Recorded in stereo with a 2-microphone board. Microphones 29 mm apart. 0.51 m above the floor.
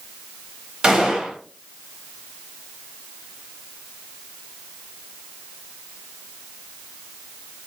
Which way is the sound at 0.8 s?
20° right (ahead or behind).